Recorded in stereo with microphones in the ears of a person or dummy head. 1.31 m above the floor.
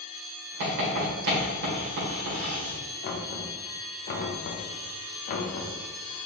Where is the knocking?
40° left (ahead or behind), 0.7 m.